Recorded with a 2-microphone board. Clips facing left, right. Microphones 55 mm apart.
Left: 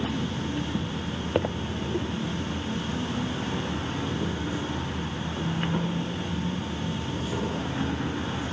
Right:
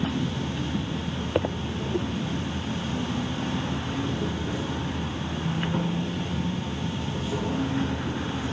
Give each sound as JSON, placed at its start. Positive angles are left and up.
{"t": 0.0, "sound": "an insect", "side_deg": 10, "distance_m": 2.5}